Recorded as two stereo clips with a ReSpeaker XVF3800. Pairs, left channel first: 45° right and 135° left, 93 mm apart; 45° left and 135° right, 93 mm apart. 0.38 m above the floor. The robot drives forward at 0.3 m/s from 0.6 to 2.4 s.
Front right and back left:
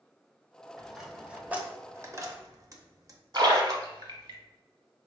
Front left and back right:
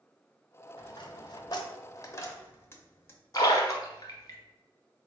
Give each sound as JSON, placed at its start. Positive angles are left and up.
{"t": 0.8, "sound": "a dropped coin", "azimuth_deg": 50, "distance_m": 0.7}
{"t": 3.3, "sound": "a splash", "azimuth_deg": 95, "distance_m": 0.9}